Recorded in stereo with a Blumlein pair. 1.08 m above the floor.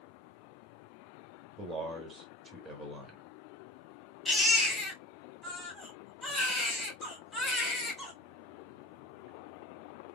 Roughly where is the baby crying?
Ahead.